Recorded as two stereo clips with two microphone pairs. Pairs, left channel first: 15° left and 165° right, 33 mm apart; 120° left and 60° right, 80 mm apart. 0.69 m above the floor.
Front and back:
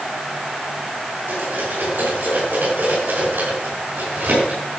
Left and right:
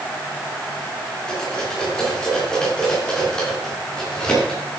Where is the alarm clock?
No alarm clock in this recording.